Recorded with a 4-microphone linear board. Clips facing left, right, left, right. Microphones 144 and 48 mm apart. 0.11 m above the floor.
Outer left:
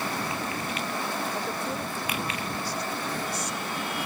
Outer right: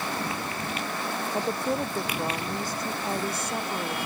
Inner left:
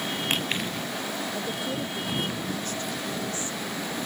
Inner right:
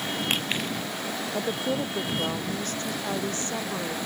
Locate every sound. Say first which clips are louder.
1.3 s a woman speaking: outer right 4 dB, inner right 3 dB; 25° right (ahead or behind); by 4.0 s 55° right (ahead or behind)